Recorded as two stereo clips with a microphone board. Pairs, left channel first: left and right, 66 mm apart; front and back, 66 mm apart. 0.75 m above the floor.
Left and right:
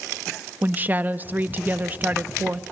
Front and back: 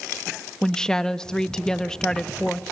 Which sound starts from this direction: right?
A woman speaking, at 0.6 s.